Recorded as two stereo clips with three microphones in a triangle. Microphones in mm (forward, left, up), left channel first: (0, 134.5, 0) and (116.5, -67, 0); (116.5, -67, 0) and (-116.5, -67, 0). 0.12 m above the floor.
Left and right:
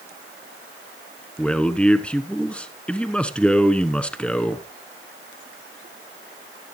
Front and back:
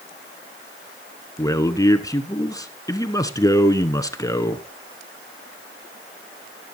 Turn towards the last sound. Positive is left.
turn(degrees=45)